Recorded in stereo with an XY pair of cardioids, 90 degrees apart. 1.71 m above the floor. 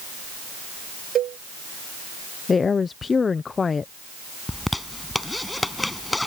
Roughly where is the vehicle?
No vehicle in this recording.